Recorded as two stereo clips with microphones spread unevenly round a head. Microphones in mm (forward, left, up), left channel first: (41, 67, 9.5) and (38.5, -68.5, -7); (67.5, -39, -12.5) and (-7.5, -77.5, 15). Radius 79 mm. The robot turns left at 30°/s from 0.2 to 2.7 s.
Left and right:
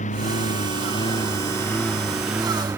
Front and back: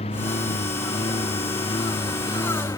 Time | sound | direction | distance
0.0 | a lawn mower | 55° left | ?